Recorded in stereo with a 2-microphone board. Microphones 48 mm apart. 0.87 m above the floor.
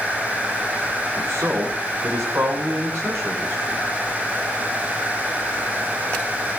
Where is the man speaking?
80° right, 8.5 m.